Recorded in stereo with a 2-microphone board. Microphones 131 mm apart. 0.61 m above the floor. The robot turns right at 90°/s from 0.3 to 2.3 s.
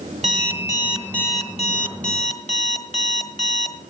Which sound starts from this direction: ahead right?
An alarm clock, at 0.2 s.